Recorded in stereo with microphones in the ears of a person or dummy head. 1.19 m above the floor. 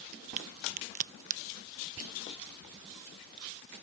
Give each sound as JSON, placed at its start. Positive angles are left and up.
{"t": 0.4, "sound": "a crack", "side_deg": -40}
{"t": 2.0, "sound": "whispering", "side_deg": -75}